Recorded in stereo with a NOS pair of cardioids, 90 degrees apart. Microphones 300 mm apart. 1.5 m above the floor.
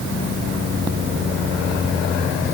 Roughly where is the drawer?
I don't hear a drawer.